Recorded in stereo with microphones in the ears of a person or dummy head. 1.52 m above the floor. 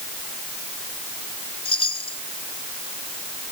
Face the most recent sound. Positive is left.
turn(degrees=25)  # may be behind; listen again after turning